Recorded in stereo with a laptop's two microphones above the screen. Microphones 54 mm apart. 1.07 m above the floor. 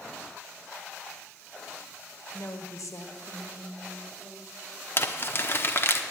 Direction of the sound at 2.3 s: 55° left (ahead or behind).